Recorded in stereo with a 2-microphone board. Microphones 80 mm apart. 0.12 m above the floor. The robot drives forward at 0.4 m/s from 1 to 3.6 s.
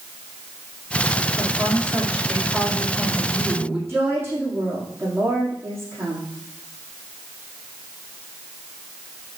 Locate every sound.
1.4 s a woman speaking: 15° right (ahead or behind), 4.5 m
3.9 s a woman speaking: 25° right (ahead or behind), 5 m